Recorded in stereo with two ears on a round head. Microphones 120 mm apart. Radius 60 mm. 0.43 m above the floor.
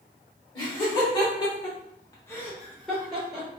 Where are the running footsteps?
No running footsteps in this recording.